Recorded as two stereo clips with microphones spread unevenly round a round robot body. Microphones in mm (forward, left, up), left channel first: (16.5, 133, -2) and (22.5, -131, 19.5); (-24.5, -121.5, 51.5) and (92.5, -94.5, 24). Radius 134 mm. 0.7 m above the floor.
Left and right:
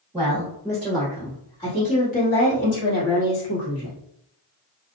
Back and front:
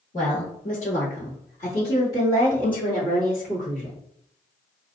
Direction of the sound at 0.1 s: 170° right.